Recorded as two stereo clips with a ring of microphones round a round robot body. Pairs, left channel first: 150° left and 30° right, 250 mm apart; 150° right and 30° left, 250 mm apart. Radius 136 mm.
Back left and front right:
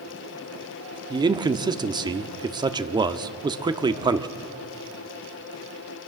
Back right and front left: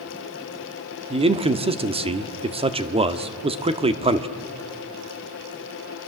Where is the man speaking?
15° left, 1.2 m.